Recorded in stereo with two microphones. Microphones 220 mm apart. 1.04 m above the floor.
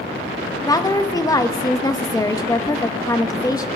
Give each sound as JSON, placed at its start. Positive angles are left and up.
{"t": 0.6, "sound": "a woman speaking", "side_deg": 15, "distance_m": 1.0}